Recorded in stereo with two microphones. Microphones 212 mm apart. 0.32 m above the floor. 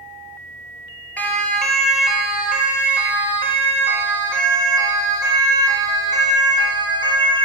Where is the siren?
5° left (ahead or behind), 6 m; by 7.5 s 20° right (ahead or behind), 14.5 m.